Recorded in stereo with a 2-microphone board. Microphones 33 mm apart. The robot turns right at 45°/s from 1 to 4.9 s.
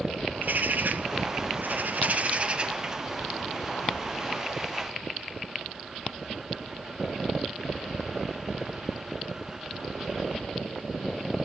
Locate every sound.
0.3 s a bird: 110° right, 0.7 m; by 4.4 s 40° left, 0.7 m